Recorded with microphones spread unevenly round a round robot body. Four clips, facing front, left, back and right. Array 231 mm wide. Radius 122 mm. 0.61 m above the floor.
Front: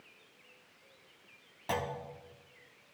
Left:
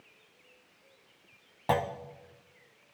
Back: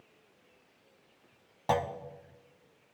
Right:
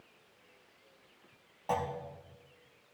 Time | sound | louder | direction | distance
1.7 | a clunk | left 5 dB, back 6 dB | 100° left | 0.5 m